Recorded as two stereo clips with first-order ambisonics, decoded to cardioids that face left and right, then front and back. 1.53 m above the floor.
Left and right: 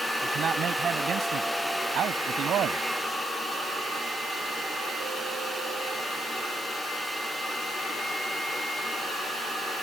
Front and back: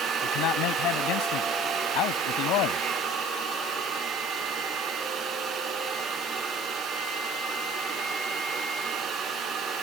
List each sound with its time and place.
0.2 s a man speaking: 30° right; by 2.9 s 35° right